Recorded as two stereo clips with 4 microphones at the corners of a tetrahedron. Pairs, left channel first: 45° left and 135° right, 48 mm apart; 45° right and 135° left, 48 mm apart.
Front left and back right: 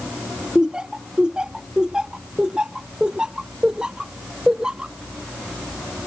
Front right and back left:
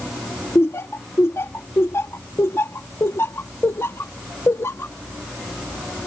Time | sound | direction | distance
0.6 | laughter | 60° right | ?